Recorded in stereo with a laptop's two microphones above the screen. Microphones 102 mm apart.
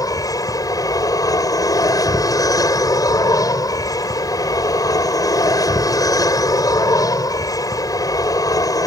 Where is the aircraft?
35° left (ahead or behind).